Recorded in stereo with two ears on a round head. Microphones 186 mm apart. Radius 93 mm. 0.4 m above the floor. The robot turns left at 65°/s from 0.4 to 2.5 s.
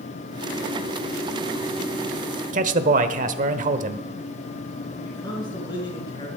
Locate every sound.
2.5 s a man speaking: 40° right (ahead or behind), 1.1 m
5.0 s a man speaking: 20° left (ahead or behind), 5 m